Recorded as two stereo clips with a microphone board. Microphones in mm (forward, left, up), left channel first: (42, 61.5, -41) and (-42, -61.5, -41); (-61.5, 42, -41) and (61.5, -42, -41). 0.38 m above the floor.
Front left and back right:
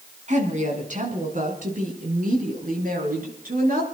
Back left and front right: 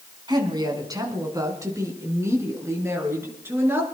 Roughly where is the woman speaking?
Right.